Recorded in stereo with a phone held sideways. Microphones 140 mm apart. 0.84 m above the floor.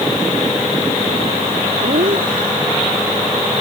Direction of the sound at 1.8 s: 85° right.